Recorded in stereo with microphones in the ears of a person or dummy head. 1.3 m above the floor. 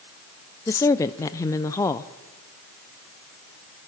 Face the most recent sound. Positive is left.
turn(degrees=15)  # may be behind; listen again after turning